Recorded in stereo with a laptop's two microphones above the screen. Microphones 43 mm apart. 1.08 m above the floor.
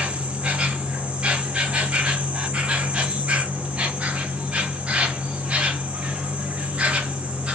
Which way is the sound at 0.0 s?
30° right (ahead or behind).